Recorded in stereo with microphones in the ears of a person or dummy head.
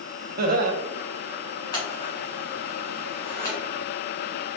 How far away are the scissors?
About 1.6 m.